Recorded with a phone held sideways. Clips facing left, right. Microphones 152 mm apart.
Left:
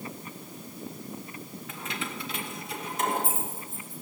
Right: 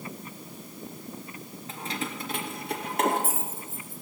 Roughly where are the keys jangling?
Right.